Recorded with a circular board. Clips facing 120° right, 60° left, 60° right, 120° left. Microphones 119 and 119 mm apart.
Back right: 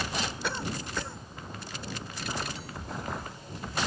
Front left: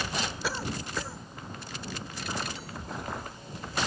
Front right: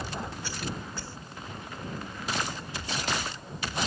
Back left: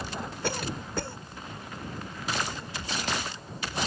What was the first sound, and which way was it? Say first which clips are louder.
A cough: even, back left 4 dB; 150° left.